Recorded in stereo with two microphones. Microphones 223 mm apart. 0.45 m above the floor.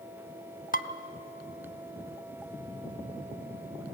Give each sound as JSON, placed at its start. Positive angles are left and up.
{"t": 0.7, "sound": "dishes clattering", "side_deg": 40, "distance_m": 0.8}